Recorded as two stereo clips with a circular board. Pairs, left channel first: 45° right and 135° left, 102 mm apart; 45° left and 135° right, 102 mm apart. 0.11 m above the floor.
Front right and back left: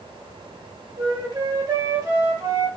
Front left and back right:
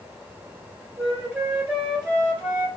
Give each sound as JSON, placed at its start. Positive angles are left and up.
{"t": 1.0, "sound": "a flute", "azimuth_deg": 165, "distance_m": 1.7}